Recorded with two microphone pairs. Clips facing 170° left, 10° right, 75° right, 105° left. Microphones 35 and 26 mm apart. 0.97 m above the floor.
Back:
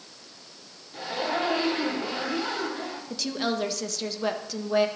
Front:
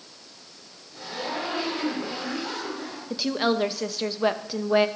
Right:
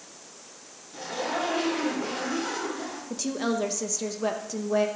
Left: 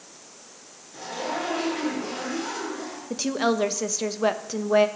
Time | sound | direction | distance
0.9 | a zipper | 145° right | 5 m
3.1 | a woman speaking | 55° left | 0.8 m